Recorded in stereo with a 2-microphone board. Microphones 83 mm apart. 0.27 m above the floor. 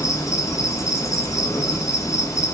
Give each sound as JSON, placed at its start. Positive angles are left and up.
{"t": 0.0, "sound": "an insect", "side_deg": 40, "distance_m": 0.9}